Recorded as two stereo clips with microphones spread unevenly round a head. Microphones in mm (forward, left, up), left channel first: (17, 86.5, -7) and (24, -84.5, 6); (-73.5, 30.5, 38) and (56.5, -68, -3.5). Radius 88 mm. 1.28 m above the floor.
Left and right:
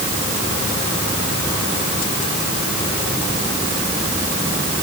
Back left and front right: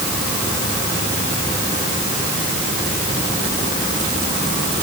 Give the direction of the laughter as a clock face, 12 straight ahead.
I don't hear laughter.